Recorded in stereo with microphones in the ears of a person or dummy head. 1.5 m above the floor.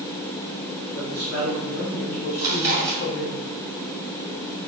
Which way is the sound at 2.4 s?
15° right (ahead or behind).